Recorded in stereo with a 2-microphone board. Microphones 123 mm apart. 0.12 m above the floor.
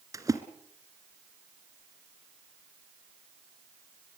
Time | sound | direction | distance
0.1 | a splash | 30° right (ahead or behind) | 1.7 m